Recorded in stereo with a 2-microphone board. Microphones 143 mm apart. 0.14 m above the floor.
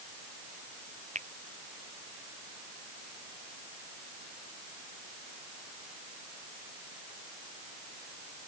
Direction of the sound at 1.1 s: 50° right (ahead or behind).